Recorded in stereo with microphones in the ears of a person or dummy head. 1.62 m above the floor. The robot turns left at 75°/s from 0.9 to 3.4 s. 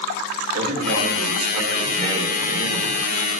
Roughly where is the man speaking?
Right.